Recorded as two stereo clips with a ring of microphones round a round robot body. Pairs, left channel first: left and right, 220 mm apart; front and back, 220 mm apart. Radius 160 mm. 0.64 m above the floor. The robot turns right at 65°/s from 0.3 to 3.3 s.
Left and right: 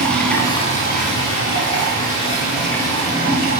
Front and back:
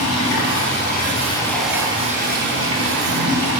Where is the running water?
5° left, 4.5 m; by 3.6 s 160° right, 4.5 m.